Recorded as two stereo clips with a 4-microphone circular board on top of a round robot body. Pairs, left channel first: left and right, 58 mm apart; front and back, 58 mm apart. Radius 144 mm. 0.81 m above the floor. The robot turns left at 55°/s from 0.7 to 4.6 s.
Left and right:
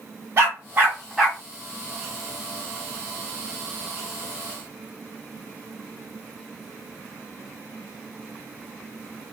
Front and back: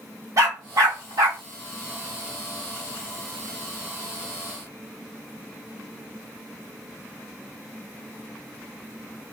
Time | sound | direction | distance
0.4 | a dog barking | 145° right | 1.2 m